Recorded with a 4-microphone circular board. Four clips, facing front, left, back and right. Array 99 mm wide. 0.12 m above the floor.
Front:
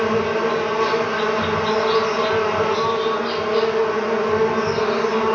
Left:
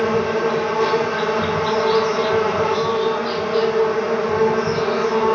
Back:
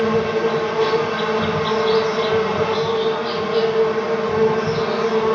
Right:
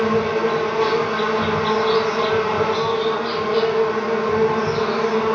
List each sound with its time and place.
0.0 s an insect: 30° left, 1.7 m